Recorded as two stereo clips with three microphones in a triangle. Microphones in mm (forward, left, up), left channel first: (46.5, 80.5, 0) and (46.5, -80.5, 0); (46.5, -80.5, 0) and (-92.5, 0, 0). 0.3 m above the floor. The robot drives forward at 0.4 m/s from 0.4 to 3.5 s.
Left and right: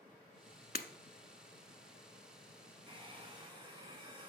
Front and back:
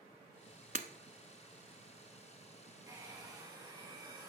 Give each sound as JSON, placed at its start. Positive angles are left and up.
{"t": 0.8, "sound": "breaking glass", "azimuth_deg": 110, "distance_m": 0.8}
{"t": 2.9, "sound": "a hair dryer", "azimuth_deg": -145, "distance_m": 2.5}